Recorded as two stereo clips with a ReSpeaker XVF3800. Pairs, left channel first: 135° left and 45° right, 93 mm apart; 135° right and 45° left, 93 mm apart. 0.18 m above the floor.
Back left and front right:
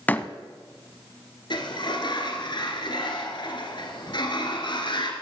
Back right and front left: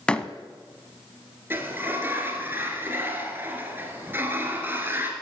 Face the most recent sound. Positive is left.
turn(degrees=110)